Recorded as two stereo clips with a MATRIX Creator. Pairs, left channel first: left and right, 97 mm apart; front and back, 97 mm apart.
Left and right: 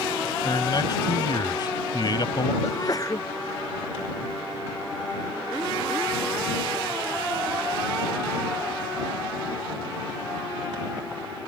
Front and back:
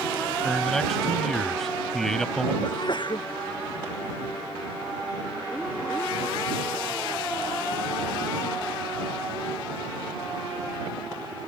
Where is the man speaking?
85° left.